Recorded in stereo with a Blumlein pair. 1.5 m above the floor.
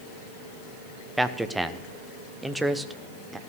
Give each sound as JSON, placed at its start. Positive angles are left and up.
{"t": 1.2, "sound": "a man speaking", "azimuth_deg": -5, "distance_m": 0.7}